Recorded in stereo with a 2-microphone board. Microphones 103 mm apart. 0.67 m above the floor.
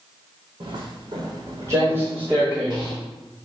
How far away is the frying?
I don't hear frying.